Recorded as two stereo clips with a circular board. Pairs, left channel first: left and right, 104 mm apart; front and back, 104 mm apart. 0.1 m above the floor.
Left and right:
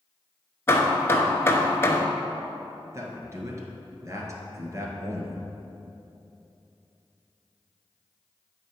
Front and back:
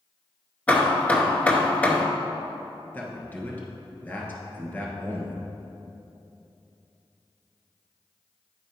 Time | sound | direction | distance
0.7 | hammering | 60° left | 0.6 m
2.9 | a man speaking | 55° right | 1.4 m